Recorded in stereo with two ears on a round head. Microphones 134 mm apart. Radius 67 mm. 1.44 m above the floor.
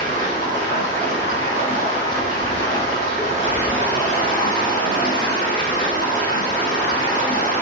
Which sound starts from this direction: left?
Running water, at 0.0 s.